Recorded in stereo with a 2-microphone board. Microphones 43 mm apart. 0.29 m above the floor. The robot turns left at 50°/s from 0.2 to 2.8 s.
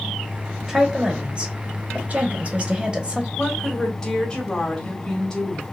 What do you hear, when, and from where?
0.7 s a woman speaking: 10° right (ahead or behind), 1.0 m; by 3.3 s 25° right (ahead or behind), 1.0 m
3.4 s a woman speaking: 15° left (ahead or behind), 1.4 m